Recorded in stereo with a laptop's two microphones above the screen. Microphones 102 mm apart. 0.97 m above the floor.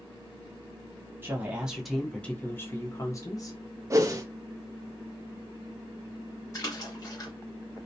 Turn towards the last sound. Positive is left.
turn(degrees=35)  # may be behind; listen again after turning